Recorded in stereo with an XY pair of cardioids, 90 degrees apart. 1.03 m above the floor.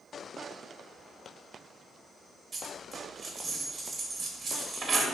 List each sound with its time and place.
2.5 s a dropped coin: 40° right, 1.0 m